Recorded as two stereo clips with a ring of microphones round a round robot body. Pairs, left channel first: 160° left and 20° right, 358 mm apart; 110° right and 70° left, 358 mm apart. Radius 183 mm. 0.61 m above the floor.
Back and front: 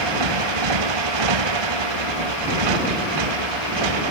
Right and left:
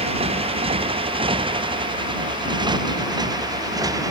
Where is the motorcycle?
5° right; by 4.1 s 15° right.